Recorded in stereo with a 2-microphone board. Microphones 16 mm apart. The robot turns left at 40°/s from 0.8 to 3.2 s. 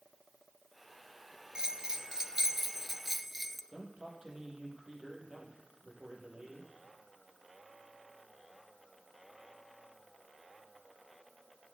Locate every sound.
1.6 s a bell: 100° right, 0.6 m; by 3.6 s 165° right, 0.6 m
3.7 s a man speaking: 45° right (ahead or behind), 3.5 m